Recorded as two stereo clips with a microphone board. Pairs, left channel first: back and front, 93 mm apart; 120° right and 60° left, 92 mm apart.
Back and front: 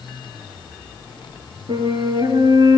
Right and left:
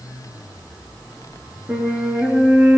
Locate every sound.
1.7 s a flute: 5° right, 5.5 m